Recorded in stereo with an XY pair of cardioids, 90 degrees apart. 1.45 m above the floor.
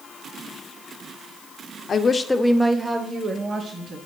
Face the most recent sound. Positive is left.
turn(degrees=-45)